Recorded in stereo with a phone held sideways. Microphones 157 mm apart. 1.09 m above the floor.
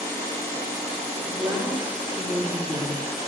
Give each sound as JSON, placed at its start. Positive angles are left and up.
{"t": 1.2, "sound": "a woman speaking", "side_deg": -15, "distance_m": 4.5}